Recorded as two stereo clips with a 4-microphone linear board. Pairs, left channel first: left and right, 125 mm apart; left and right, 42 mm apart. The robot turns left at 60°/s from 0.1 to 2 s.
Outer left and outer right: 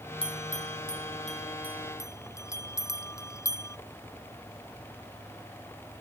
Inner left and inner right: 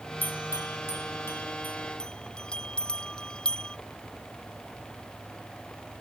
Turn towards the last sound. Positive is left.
turn(degrees=25)  # may be behind; listen again after turning